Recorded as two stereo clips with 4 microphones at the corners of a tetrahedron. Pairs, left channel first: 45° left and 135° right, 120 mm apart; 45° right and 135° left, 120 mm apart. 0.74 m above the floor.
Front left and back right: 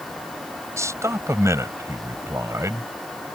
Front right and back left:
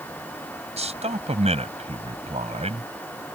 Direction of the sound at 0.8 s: 160° left.